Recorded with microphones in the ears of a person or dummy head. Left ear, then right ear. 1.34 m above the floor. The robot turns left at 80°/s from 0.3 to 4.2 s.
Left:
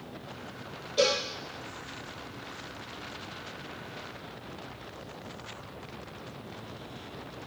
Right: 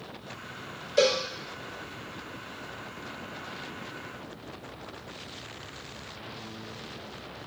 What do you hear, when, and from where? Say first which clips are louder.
1.0 s a cowbell: right 2 dB; 55° right (ahead or behind), 2 m; by 1.2 s 35° right (ahead or behind), 2 m